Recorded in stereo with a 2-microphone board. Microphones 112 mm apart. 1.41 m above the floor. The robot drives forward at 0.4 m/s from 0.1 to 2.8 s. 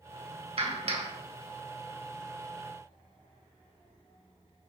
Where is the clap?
55° right (ahead or behind), 2 m; by 1.1 s 50° right (ahead or behind), 2.5 m.